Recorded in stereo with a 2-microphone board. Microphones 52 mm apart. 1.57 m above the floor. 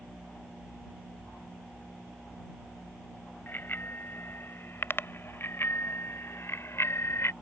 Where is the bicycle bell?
40° left (ahead or behind); by 7.3 s 60° left (ahead or behind).